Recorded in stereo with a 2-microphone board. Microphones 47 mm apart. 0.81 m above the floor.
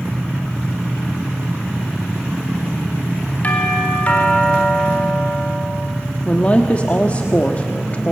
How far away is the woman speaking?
About 1.3 m.